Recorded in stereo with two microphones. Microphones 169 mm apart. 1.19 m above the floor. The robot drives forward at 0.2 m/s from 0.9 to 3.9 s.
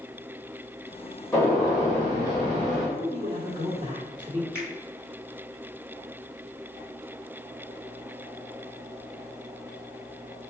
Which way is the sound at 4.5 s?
15° left (ahead or behind).